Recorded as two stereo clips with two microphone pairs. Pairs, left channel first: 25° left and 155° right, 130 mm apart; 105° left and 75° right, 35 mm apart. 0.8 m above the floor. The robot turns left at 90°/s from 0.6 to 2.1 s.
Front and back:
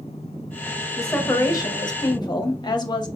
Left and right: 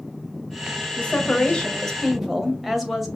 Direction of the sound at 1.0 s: 115° left.